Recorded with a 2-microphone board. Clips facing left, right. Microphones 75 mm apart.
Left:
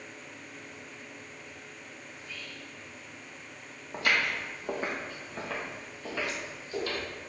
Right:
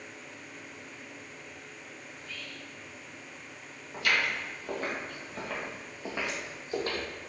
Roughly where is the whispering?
Centre.